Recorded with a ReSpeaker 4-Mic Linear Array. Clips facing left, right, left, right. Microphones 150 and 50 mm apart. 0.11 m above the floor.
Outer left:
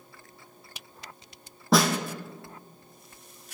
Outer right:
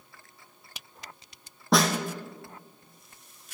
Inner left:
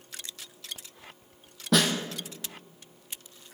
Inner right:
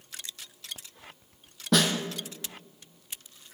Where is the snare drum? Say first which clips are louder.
Outer left 1 dB, even; centre (ahead or behind), 1.1 m.